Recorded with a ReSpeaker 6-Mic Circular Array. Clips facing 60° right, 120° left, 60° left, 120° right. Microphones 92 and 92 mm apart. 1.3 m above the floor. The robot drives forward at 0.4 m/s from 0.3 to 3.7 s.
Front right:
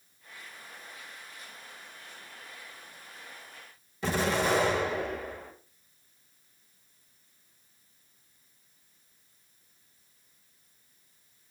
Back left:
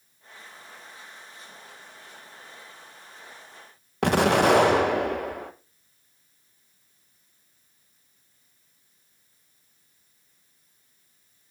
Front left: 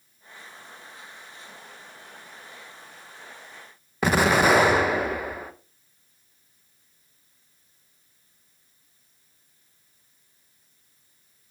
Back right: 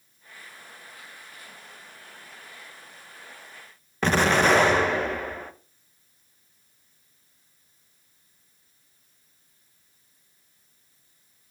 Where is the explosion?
140° left, 0.7 m.